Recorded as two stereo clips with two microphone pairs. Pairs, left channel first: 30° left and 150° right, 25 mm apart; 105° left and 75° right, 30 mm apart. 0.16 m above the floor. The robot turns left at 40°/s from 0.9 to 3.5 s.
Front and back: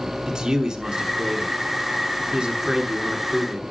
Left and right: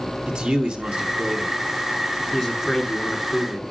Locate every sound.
0.3 s a man speaking: 100° right, 1.5 m; by 3.6 s 155° left, 1.5 m